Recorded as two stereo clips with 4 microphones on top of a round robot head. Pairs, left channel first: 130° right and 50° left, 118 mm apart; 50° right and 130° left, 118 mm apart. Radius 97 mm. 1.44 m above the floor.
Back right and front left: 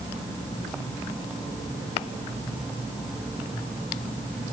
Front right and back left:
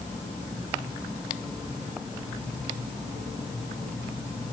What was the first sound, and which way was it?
Only background noise.